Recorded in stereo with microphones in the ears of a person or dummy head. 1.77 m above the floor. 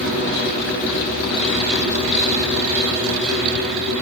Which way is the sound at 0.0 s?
80° right.